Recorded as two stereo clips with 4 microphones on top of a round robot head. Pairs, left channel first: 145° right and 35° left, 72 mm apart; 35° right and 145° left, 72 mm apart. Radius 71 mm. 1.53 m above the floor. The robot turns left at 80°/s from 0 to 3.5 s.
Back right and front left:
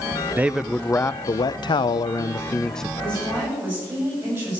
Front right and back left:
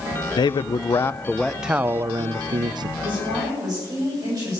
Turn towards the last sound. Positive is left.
turn(degrees=105)